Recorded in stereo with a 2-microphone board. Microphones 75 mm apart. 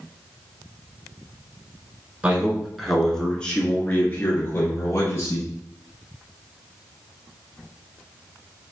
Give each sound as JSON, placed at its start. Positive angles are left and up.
{"t": 2.2, "sound": "a man speaking", "side_deg": -15, "distance_m": 1.3}